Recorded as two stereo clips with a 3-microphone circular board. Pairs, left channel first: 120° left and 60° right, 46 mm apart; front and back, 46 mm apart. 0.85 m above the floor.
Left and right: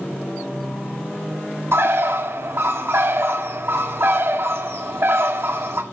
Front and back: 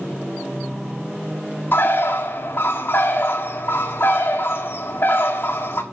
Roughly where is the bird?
Ahead right.